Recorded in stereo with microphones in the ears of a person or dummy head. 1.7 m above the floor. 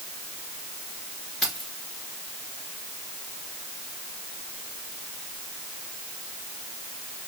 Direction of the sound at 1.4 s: 5° left (ahead or behind).